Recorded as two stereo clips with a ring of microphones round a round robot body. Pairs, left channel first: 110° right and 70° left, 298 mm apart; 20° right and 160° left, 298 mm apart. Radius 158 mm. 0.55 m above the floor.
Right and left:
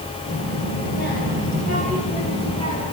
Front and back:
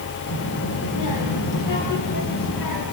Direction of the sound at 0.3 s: 60° right.